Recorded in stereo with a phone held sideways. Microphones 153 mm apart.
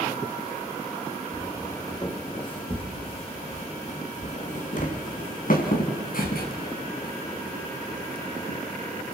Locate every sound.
1.3 s footsteps: 20° left (ahead or behind), 4.5 m; by 8.6 s 75° left (ahead or behind), 5 m